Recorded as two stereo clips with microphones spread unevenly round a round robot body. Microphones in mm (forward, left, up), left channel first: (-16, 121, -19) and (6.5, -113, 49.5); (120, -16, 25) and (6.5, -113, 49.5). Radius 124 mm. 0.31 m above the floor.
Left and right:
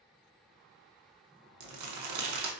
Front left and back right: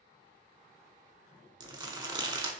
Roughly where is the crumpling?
Right.